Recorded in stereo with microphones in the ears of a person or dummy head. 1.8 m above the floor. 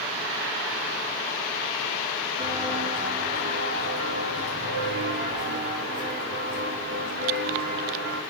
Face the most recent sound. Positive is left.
turn(degrees=-60)  # may be behind; listen again after turning